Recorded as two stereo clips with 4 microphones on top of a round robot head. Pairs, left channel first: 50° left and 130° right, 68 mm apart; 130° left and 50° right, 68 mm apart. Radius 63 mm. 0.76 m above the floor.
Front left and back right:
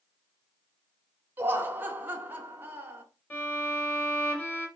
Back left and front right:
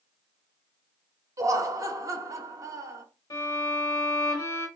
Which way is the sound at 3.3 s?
110° left.